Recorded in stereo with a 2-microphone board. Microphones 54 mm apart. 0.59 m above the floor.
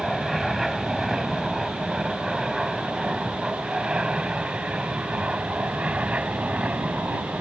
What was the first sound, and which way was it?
An aircraft, centre (ahead or behind).